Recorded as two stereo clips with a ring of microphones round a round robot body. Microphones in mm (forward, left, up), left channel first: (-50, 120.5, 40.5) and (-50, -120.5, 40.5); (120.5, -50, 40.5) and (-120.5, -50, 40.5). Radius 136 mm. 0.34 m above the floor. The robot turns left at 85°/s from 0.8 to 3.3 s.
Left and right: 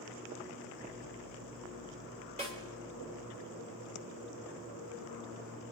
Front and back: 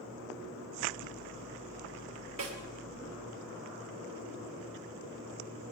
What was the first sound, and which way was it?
A snare drum, 150° right.